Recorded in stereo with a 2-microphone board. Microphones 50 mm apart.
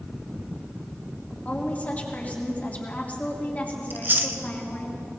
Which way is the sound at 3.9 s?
40° right (ahead or behind).